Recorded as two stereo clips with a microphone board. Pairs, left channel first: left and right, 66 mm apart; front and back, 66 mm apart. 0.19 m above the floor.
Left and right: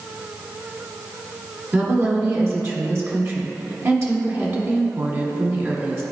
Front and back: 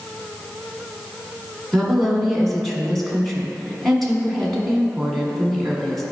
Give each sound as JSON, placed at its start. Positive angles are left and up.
{"t": 1.7, "sound": "a woman speaking", "azimuth_deg": -85, "distance_m": 1.4}